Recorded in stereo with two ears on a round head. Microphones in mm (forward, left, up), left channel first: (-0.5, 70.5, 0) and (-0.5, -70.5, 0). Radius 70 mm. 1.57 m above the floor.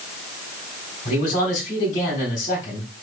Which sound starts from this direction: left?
A man speaking, at 1.1 s.